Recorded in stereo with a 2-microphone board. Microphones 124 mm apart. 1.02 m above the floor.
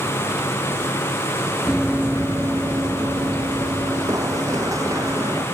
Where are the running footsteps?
5° right (ahead or behind); by 5.5 s 25° right (ahead or behind).